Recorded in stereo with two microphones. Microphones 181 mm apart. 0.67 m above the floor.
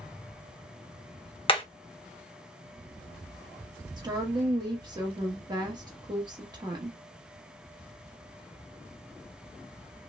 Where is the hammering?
30° left (ahead or behind), 0.7 m.